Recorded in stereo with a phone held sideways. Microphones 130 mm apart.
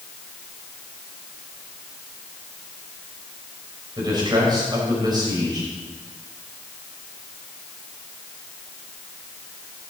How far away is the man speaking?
About 6 m.